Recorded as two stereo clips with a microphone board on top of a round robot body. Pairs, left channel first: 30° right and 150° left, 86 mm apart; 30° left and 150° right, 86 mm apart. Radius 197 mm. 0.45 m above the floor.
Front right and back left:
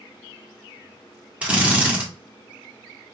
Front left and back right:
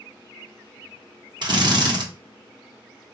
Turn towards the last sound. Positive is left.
turn(degrees=-135)